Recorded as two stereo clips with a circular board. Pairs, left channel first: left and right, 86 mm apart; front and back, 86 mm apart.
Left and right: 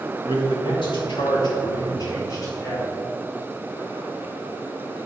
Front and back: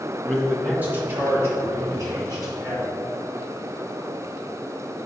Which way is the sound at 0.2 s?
90° left.